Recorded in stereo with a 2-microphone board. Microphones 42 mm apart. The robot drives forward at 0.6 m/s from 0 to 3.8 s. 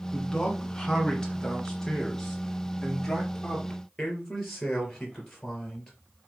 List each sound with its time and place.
0.1 s a man speaking: 15° left (ahead or behind), 1.9 m; by 5.9 s 10° left (ahead or behind), 3.5 m